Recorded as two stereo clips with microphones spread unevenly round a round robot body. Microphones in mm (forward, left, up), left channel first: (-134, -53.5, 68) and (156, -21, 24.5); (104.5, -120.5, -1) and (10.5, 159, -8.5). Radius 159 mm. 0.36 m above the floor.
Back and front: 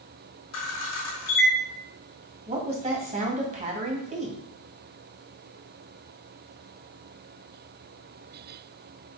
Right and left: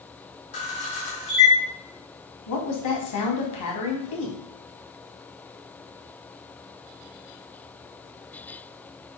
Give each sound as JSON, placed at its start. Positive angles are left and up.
{"t": 0.5, "sound": "a camera shutter", "azimuth_deg": -140, "distance_m": 4.0}
{"t": 2.5, "sound": "a woman speaking", "azimuth_deg": -55, "distance_m": 2.5}